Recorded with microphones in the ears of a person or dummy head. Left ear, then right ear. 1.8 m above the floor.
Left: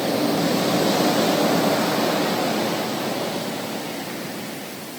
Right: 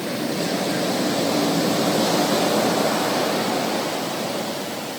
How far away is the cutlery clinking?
I don't hear cutlery clinking.